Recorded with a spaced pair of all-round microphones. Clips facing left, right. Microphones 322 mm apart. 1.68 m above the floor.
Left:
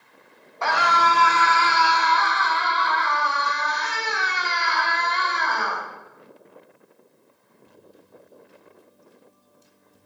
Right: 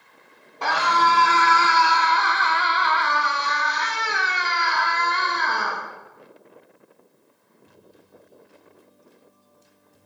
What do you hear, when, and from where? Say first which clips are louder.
0.6 s a scream: even; 40° right (ahead or behind), 2.5 m; by 5.8 s 45° right (ahead or behind), 3 m